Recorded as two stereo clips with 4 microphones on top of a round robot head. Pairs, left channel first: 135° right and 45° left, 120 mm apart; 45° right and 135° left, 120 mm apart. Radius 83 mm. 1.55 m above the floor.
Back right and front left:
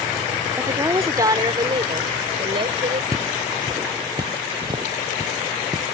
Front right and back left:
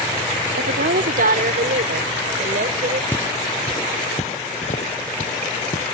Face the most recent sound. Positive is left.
turn(degrees=-15)